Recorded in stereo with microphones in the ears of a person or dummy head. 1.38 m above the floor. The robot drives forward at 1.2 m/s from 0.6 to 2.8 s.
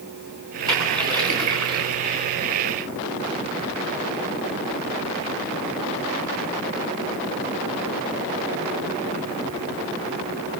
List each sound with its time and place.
0.7 s a splash: 25° right (ahead or behind), 9 m; by 1.9 s 30° right (ahead or behind), 7.5 m